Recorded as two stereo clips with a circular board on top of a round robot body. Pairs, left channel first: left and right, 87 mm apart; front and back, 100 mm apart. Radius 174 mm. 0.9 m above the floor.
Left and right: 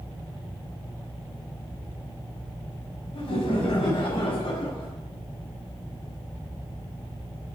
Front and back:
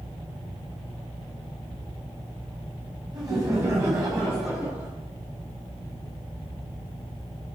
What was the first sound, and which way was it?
Laughter, 120° left.